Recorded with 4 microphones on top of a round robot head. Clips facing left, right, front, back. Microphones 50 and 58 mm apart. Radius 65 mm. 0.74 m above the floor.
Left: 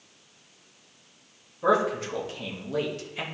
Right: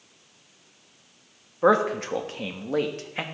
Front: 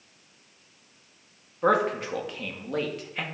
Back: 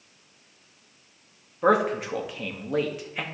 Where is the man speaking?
100° right, 1.2 m.